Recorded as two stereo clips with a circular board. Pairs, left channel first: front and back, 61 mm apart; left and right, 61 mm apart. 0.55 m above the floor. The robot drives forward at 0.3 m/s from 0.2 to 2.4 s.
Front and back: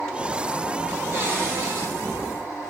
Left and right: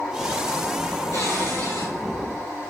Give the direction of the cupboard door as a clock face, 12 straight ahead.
8 o'clock.